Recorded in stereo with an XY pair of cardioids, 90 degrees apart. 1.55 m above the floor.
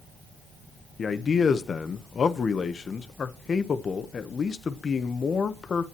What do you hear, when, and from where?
1.0 s a man speaking: 50° left, 1.3 m